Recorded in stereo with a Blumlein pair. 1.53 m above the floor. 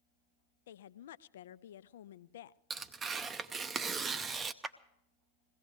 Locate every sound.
0.7 s a woman speaking: 60° left, 0.5 m
2.7 s tearing paper: 20° right, 0.6 m
4.6 s a clap: 15° right, 0.8 m